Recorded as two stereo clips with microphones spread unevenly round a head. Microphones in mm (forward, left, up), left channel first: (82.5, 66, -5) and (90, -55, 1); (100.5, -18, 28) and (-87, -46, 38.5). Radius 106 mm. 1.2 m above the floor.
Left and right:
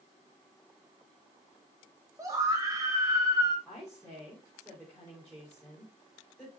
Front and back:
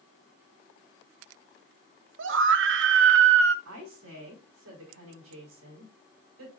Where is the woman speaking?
Straight behind, 4.5 m.